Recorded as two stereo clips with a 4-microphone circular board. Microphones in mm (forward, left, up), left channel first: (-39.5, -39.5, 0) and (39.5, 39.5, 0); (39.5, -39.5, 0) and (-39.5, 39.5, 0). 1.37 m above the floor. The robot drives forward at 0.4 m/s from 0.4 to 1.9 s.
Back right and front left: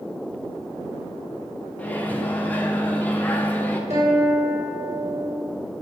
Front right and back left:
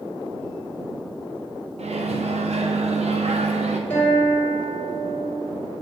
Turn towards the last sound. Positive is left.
turn(degrees=25)